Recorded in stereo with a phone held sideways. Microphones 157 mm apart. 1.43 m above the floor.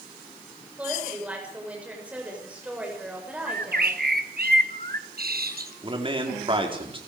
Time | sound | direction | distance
0.8 | a woman speaking | 10° right (ahead or behind) | 6.5 m
3.5 | a bird | 75° right (ahead or behind) | 1.3 m
5.8 | a man speaking | 35° right (ahead or behind) | 4 m